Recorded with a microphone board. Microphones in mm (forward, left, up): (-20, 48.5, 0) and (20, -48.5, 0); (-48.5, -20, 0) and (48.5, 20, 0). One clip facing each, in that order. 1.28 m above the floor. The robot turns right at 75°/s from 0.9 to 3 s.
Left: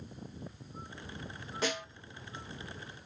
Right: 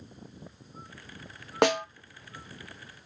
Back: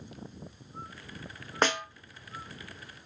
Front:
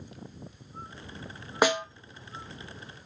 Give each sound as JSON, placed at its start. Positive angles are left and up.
{"t": 1.6, "sound": "a snare drum", "azimuth_deg": -60, "distance_m": 0.7}